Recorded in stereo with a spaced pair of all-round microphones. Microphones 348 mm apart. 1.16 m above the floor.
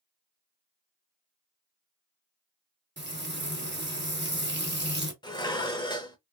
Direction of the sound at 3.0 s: 30° right (ahead or behind).